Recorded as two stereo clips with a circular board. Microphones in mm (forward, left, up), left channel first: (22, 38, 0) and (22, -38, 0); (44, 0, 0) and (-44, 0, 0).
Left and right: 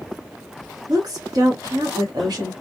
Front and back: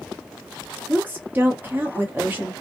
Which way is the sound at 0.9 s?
110° right.